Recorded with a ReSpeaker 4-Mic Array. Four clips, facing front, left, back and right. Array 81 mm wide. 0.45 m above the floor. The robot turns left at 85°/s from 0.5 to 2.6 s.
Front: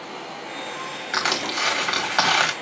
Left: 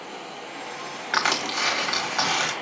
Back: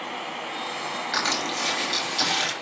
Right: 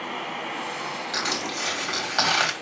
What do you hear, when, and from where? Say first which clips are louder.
0.0 s running water: right 5 dB, back 2 dB; 105° right, 2.0 m; by 2.6 s 75° left, 2.0 m
1.1 s crushing: left 8 dB, front 4 dB; 80° left, 3 m; by 2.5 s 40° right, 3 m